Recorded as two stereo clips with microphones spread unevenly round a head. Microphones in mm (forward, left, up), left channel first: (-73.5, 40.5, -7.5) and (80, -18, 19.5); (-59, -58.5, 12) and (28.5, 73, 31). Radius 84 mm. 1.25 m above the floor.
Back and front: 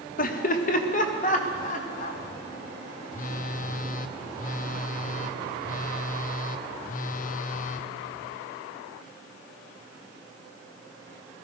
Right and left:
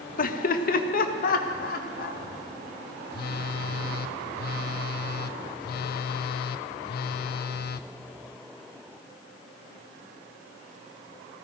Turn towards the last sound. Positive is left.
turn(degrees=-155)